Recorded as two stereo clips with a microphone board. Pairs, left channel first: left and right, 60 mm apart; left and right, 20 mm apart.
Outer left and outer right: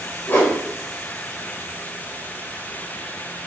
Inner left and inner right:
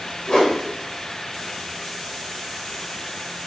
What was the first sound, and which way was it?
A whoosh, 35° left (ahead or behind).